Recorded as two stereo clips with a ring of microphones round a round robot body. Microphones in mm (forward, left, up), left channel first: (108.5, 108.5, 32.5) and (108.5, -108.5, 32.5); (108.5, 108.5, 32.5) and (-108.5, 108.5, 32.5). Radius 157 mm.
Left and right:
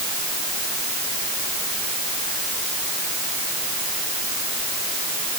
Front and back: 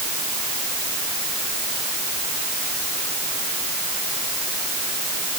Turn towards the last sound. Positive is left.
No sound to turn to.